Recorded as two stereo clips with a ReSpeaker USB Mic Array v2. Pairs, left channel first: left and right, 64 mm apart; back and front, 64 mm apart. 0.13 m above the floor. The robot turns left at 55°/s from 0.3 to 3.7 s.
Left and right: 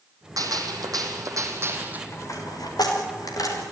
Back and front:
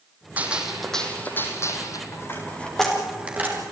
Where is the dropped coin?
135° left, 6.5 m; by 3.6 s 50° left, 6.5 m.